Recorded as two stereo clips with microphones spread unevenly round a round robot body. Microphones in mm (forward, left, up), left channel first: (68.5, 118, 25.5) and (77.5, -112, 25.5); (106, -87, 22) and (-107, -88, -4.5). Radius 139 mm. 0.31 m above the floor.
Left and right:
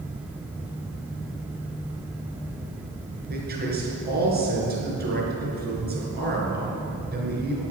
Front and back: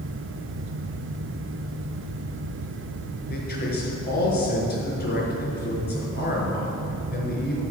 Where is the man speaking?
40° right, 5 m.